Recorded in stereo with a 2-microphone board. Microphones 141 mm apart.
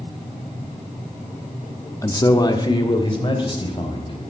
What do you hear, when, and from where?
2.0 s a man speaking: 25° left (ahead or behind), 1.0 m; by 4.1 s 40° left (ahead or behind), 4 m